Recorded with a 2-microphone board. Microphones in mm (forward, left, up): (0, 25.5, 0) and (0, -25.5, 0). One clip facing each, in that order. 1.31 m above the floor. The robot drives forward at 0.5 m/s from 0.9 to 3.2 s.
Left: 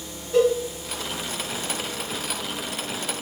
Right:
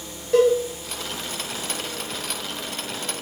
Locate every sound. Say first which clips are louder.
0.3 s a cowbell: right 2 dB; 60° right (ahead or behind), 3.5 m